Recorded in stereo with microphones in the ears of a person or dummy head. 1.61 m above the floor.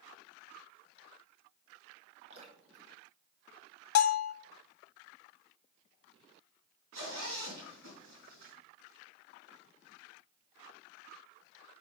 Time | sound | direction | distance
2.3 | dripping | 40° right (ahead or behind) | 1.7 m
4.0 | a bell | 85° left | 0.6 m
6.9 | a zipper | 70° right (ahead or behind) | 4.5 m